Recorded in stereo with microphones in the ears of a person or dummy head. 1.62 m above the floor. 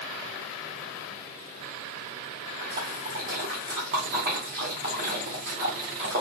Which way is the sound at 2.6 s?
40° right (ahead or behind).